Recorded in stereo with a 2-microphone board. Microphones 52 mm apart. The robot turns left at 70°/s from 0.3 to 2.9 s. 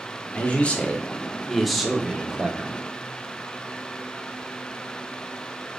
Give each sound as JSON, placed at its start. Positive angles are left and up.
{"t": 0.3, "sound": "a man speaking", "side_deg": 25, "distance_m": 0.7}